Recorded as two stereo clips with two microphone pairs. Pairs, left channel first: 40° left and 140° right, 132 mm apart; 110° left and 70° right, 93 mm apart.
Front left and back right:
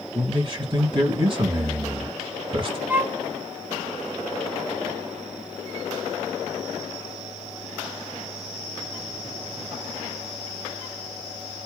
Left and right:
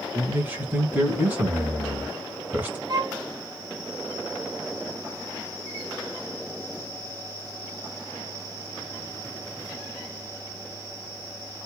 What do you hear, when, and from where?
0.1 s a man speaking: 130° right, 1.5 m
2.9 s a violin: 65° right, 0.6 m